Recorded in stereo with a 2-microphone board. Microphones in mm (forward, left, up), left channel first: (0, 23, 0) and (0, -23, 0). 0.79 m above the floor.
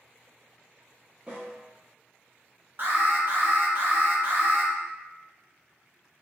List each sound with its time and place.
1.3 s a snare drum: 15° right (ahead or behind), 0.9 m
2.8 s an alarm: 45° right (ahead or behind), 0.7 m